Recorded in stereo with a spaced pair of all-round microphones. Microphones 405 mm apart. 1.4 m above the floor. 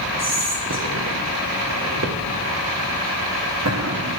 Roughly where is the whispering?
Right.